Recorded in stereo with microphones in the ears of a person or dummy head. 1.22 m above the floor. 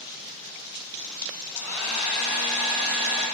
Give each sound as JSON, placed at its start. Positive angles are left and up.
{"t": 1.5, "sound": "a hair dryer", "side_deg": -5, "distance_m": 1.5}